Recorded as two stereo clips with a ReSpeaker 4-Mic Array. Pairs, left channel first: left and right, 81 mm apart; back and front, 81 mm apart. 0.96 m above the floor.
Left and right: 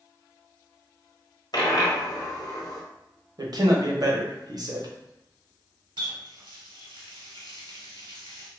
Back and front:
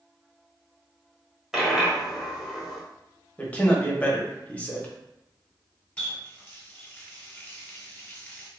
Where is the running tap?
110° right, 1.0 m.